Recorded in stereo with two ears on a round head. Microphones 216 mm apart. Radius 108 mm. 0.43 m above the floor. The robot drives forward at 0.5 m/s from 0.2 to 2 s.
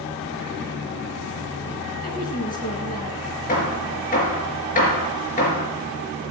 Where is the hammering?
35° left (ahead or behind), 4.5 m.